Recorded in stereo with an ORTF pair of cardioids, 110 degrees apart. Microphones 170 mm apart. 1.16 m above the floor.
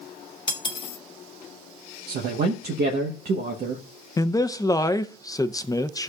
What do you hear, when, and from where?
0.5 s cutlery clinking: 30° left, 1.1 m
2.1 s a man speaking: 65° right, 1.1 m
4.2 s a man speaking: 20° left, 0.6 m